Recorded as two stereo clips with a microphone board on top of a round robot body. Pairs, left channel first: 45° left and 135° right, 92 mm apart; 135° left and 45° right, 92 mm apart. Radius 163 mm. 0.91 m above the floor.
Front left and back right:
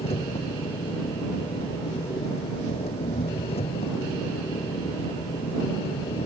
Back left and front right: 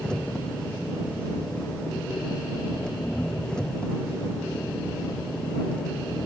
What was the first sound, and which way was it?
An engine running, 55° left.